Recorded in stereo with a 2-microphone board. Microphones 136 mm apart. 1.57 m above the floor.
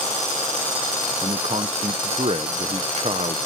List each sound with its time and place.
1.2 s a man speaking: 50° right (ahead or behind)